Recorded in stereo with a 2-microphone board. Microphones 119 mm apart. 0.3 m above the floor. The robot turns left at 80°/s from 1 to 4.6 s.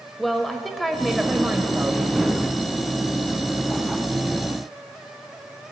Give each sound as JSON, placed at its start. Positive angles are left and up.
{"t": 0.2, "sound": "a woman speaking", "side_deg": 0, "distance_m": 1.2}